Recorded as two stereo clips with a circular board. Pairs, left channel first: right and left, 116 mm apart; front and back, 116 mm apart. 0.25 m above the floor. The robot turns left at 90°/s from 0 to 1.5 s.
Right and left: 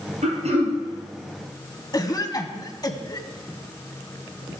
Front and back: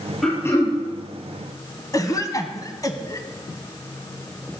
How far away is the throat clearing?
About 3.5 m.